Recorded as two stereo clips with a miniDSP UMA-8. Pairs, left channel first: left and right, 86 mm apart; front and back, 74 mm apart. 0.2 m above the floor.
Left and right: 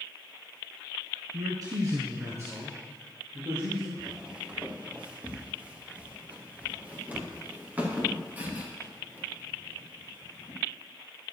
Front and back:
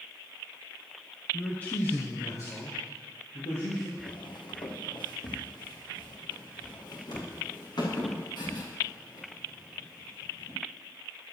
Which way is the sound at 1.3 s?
75° right.